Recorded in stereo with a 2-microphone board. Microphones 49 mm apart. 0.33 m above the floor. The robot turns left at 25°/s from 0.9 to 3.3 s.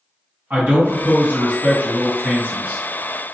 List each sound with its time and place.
0.5 s a man speaking: 80° right, 1.9 m; by 2.8 s 130° right, 1.9 m